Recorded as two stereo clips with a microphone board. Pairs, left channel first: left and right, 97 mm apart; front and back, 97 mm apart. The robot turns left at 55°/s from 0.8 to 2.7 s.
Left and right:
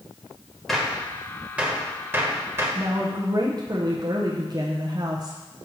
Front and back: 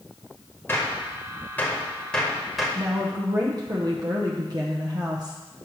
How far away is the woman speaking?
About 0.7 m.